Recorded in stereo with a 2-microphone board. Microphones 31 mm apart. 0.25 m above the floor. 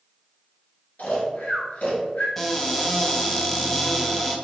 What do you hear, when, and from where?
1.0 s snoring: 65° left (ahead or behind), 1.2 m
2.4 s a cupboard door: 10° left (ahead or behind), 0.5 m